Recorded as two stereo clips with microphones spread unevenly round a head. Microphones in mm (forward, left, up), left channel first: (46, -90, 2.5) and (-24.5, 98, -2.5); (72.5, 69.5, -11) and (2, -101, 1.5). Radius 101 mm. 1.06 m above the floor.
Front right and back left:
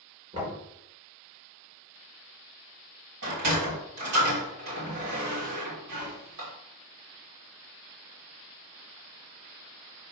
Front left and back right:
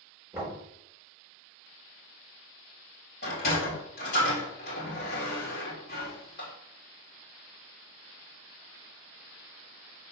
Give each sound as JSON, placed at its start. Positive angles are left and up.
{"t": 0.3, "sound": "knocking", "azimuth_deg": 170, "distance_m": 4.0}
{"t": 3.2, "sound": "a sliding door", "azimuth_deg": 120, "distance_m": 3.0}